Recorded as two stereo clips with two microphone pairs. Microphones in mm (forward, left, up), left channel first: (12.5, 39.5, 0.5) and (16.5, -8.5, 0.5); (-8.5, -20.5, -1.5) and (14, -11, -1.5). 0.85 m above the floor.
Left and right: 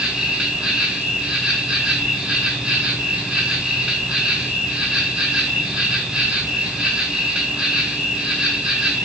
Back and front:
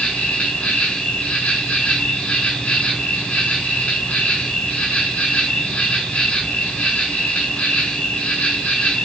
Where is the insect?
160° right, 3.5 m.